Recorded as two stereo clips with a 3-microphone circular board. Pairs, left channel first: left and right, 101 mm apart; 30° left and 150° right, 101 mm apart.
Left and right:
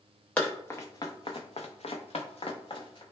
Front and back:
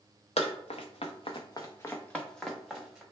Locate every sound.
0.4 s running footsteps: 15° left, 0.7 m; by 3.0 s 130° left, 1.0 m